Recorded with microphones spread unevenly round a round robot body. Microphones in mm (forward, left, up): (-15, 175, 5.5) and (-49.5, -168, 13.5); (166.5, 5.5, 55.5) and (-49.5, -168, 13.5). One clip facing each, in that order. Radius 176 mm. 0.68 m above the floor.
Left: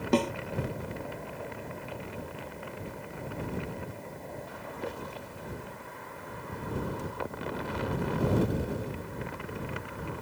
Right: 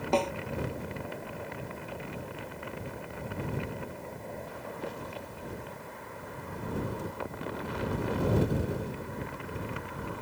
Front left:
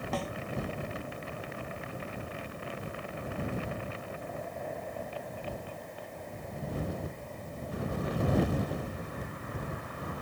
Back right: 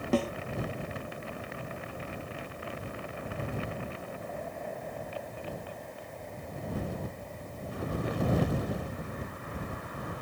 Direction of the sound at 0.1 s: 150° left.